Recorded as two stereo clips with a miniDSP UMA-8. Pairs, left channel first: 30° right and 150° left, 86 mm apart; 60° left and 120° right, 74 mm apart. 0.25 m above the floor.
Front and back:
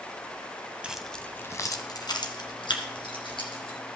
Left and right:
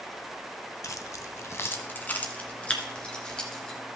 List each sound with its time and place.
0.8 s keys jangling: 80° left, 0.8 m; by 3.8 s 20° right, 3 m